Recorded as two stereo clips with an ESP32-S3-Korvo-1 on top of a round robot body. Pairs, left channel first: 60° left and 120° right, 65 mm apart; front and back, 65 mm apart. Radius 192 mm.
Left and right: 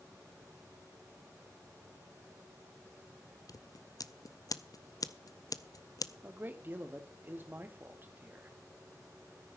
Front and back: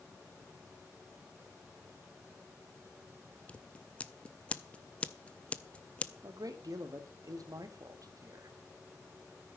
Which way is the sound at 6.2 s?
175° right.